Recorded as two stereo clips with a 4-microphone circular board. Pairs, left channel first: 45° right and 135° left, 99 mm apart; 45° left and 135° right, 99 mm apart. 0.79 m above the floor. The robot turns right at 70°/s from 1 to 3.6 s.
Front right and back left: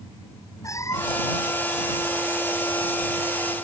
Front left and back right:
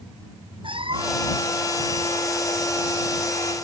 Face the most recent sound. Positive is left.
turn(degrees=80)